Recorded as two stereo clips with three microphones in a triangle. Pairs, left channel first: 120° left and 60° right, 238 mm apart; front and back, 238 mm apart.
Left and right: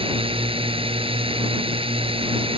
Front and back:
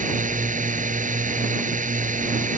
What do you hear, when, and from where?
0.0 s a drone: 125° right